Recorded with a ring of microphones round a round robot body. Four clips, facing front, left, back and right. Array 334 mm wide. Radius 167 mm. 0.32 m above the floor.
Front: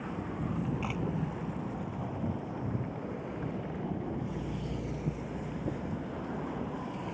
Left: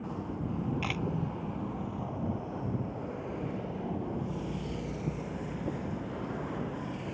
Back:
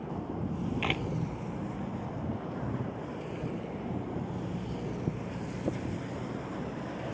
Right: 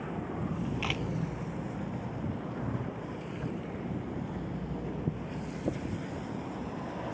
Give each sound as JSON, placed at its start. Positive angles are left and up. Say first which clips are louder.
{"t": 0.8, "sound": "a camera shutter", "louder": "even, back 2 dB", "azimuth_deg": -170}